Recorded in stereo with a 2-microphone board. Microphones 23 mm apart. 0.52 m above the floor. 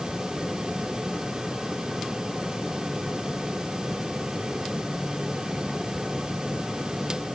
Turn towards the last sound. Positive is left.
No sound to turn to.